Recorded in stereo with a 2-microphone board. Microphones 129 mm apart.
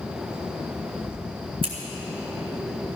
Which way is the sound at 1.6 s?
50° right (ahead or behind).